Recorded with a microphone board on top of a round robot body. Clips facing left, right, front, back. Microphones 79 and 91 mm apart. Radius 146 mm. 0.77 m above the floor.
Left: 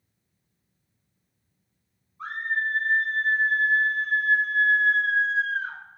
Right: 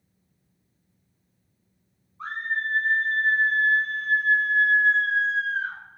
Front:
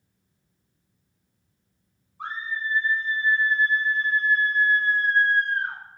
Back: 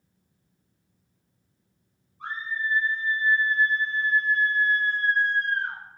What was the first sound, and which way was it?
A scream, 5° left.